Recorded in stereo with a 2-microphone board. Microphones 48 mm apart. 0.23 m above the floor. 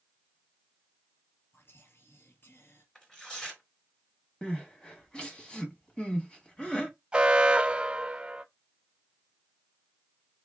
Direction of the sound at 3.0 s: 15° left (ahead or behind).